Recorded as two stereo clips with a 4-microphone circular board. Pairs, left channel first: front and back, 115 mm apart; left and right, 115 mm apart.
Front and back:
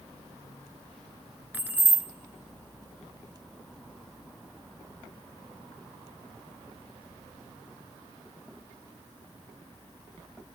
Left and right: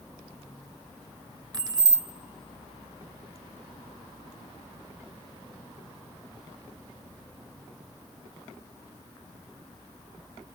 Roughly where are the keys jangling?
Behind right.